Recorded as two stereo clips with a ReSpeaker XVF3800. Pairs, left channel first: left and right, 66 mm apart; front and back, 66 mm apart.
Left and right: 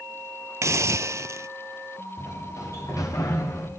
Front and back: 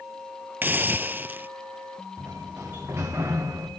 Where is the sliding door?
125° left, 4.5 m.